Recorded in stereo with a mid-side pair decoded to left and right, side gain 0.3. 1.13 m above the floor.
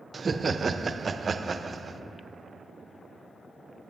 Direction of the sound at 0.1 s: 45° right.